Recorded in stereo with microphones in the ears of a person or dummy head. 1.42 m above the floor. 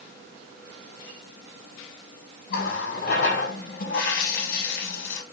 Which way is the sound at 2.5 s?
55° left (ahead or behind).